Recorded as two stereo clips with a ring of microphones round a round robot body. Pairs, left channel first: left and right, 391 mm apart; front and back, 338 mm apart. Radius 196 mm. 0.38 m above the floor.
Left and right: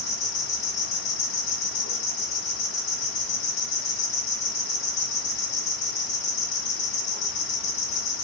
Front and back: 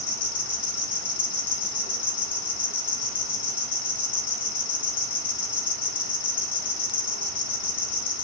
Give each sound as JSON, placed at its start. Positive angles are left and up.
{"t": 0.0, "sound": "an insect", "azimuth_deg": 50, "distance_m": 2.5}